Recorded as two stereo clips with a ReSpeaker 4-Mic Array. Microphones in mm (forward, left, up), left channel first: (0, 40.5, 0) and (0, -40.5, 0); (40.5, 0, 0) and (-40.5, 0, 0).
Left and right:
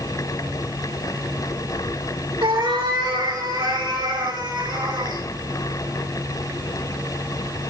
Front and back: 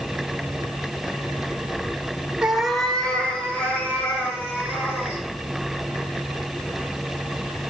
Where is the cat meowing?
100° right, 1.1 m; by 5.2 s 60° right, 4 m.